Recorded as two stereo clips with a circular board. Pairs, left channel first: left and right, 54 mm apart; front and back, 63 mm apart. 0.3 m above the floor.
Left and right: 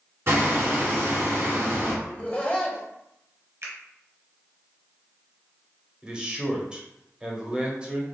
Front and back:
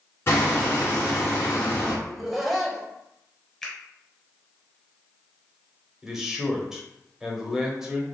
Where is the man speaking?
120° right, 1.0 m.